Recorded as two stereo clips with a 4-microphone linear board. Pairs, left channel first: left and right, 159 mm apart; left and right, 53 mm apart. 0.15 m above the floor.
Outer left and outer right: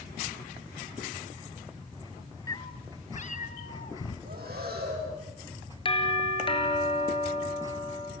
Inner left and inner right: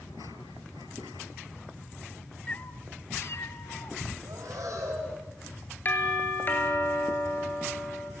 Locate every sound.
2.5 s a cat meowing: 20° left (ahead or behind), 0.8 m; by 4.2 s 70° left (ahead or behind), 1.6 m
4.2 s breathing: 80° right, 7 m
5.8 s a doorbell: 35° left (ahead or behind), 3 m